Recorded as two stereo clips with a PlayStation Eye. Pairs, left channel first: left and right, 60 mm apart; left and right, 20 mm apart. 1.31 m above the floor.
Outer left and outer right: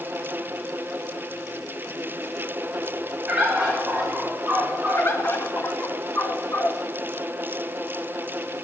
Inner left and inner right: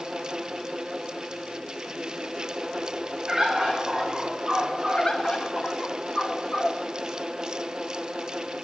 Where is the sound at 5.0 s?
40° left (ahead or behind), 1.0 m.